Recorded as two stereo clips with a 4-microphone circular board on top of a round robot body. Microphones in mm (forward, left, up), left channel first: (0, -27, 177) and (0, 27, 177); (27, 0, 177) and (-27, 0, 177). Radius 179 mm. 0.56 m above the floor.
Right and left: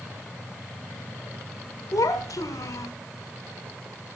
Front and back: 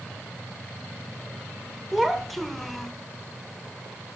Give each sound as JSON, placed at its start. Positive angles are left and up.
{"t": 1.9, "sound": "a child speaking", "azimuth_deg": -90, "distance_m": 1.6}